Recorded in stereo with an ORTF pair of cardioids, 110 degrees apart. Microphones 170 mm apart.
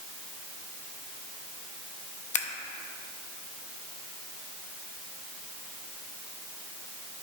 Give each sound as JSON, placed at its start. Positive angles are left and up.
{"t": 2.3, "sound": "scissors", "azimuth_deg": 45, "distance_m": 0.8}